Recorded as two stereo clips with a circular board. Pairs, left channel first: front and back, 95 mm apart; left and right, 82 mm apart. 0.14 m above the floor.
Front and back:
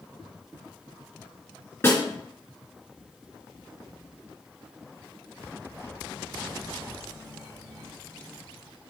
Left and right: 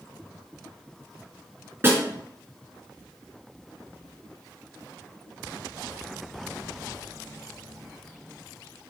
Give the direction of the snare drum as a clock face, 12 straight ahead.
2 o'clock.